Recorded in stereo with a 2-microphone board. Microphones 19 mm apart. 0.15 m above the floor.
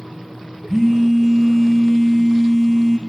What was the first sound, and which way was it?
A phone buzzing, 25° right (ahead or behind).